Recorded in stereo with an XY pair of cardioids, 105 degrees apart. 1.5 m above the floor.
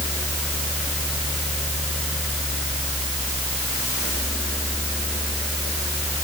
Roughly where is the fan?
Ahead.